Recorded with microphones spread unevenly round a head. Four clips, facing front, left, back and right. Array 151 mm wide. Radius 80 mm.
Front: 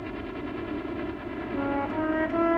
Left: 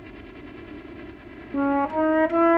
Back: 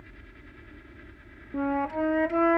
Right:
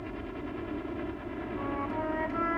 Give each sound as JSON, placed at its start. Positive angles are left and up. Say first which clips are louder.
{"t": 0.0, "sound": "a helicopter", "louder": "right 3 dB, front 18 dB", "azimuth_deg": -5}
{"t": 1.5, "sound": "a flute", "louder": "left 13 dB, back 1 dB", "azimuth_deg": 90}